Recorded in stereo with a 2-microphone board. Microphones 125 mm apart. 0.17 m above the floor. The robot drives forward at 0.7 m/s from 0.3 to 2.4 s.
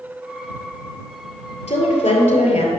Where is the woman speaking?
60° left (ahead or behind), 3 m; by 2.7 s 65° left (ahead or behind), 3 m.